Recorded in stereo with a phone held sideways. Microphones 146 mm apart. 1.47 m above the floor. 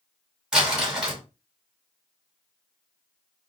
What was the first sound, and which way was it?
Crumpling, 5° right (ahead or behind).